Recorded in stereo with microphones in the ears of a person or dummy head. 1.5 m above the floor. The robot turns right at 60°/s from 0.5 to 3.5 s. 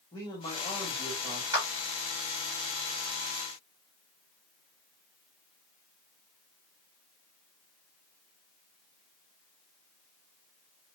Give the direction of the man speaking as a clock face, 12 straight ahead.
7 o'clock.